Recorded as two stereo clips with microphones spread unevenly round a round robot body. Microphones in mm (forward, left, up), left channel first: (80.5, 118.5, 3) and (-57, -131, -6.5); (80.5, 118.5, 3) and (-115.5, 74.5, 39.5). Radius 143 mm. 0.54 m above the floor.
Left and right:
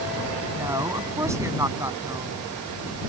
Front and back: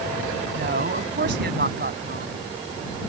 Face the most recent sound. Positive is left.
turn(degrees=160)